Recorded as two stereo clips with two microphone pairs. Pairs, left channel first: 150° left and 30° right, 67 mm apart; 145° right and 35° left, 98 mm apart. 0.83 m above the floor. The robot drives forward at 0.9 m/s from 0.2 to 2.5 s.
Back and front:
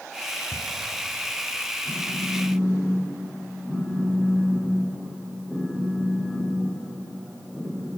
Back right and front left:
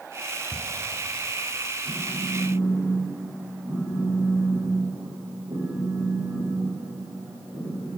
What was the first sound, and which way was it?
Ticking, 160° right.